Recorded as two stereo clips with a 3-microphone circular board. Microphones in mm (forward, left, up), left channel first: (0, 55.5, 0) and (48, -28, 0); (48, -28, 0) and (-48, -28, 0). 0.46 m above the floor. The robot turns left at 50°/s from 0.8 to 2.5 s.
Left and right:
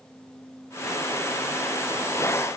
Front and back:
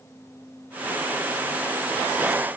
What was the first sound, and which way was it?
Only background noise.